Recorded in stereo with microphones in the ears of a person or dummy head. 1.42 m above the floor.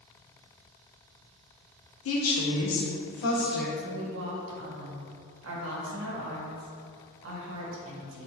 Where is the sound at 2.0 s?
80° left, 1.3 m; by 3.7 s 50° left (ahead or behind), 1.2 m.